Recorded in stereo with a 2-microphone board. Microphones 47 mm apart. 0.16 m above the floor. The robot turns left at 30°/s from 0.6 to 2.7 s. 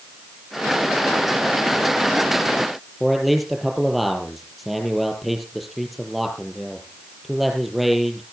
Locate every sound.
3.0 s a man speaking: centre (ahead or behind), 4.5 m